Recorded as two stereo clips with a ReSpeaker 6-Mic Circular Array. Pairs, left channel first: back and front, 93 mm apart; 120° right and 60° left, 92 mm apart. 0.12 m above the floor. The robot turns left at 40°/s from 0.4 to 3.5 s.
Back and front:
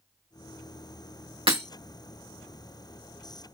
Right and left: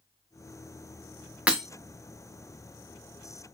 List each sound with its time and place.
1.5 s breaking glass: 15° right, 2.5 m; by 1.6 s 25° right, 2.5 m